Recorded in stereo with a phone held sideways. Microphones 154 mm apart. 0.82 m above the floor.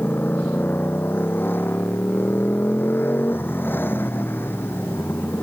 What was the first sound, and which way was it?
A motorcycle, 15° left (ahead or behind).